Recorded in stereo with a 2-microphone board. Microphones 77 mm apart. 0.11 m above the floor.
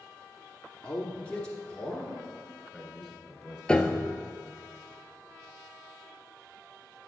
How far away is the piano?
About 0.5 m.